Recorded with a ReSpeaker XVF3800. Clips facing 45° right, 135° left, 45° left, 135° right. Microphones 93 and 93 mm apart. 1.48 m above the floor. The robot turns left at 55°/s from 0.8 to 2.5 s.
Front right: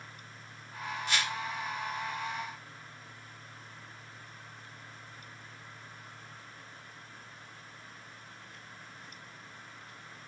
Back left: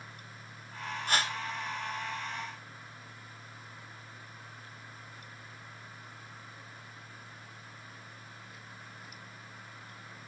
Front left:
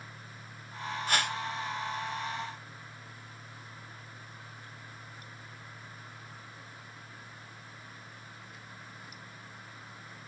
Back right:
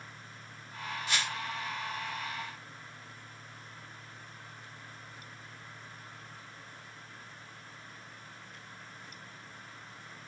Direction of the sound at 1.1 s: 90° left.